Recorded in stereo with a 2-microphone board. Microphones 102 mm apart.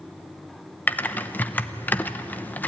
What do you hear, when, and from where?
0.9 s typing on a keyboard: 20° left (ahead or behind), 0.8 m